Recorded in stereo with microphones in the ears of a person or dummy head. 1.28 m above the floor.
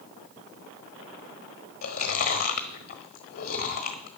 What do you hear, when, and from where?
1.8 s chewing: 45° left (ahead or behind), 1.1 m